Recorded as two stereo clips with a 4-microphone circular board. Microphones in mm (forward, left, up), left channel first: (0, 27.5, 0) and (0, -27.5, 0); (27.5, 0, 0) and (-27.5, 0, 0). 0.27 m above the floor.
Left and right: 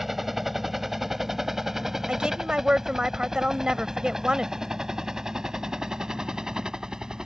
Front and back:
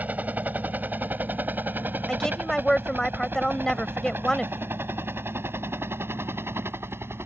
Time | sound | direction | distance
0.0 | a helicopter | 170° right | ?
2.1 | a woman speaking | 55° right | ?